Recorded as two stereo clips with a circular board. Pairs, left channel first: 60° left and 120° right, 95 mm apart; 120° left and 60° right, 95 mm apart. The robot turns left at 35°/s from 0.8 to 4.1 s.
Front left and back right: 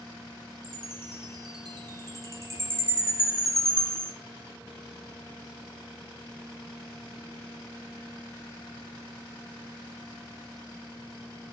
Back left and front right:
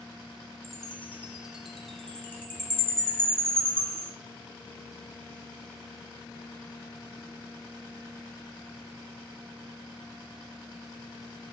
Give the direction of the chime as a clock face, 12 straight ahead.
4 o'clock.